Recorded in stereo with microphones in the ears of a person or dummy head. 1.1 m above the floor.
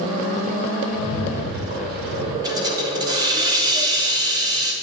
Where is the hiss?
20° right (ahead or behind), 0.7 m.